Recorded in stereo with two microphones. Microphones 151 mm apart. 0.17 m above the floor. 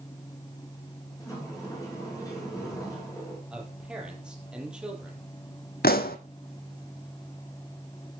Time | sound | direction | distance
1.2 | a sliding door | 20° left (ahead or behind) | 7 m
3.5 | a man speaking | 5° right (ahead or behind) | 5 m
5.8 | a pop | 85° left | 1.2 m